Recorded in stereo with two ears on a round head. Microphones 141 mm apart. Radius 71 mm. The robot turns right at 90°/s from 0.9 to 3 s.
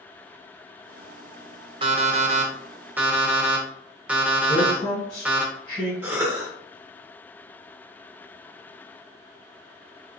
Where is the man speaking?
35° left (ahead or behind), 1.7 m.